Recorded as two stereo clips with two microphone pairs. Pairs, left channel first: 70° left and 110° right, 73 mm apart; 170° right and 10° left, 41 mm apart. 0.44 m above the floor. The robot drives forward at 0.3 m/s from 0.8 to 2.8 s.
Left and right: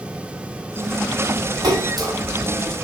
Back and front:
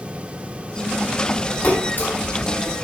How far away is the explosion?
No explosion in this recording.